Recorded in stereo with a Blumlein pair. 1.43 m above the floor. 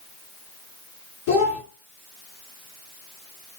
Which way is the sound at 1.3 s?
50° left.